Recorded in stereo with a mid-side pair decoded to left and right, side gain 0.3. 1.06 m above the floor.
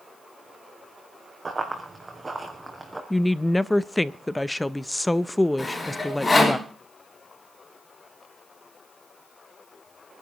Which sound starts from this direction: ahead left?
Sawing, at 5.6 s.